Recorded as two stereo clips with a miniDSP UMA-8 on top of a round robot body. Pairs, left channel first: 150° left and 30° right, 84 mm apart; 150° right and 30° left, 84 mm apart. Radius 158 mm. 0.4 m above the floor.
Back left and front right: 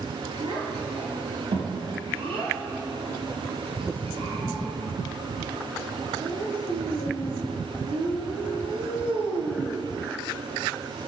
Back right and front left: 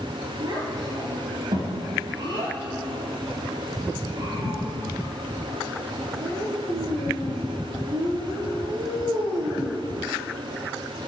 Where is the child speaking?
15° right, 6.5 m.